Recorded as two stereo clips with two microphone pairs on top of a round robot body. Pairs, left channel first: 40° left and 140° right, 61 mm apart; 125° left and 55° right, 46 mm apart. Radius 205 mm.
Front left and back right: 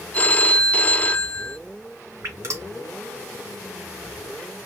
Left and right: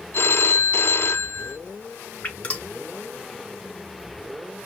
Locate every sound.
0.1 s a phone ringing: 100° left, 0.8 m
2.2 s dripping: straight behind, 3 m